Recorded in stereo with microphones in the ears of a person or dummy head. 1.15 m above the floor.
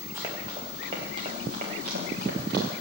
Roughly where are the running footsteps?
Centre.